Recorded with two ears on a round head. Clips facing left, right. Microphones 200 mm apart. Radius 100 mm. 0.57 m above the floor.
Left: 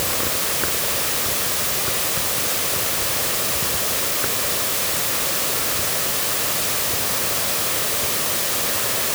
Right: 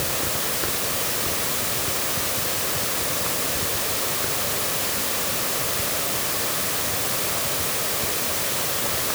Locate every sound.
Only background noise.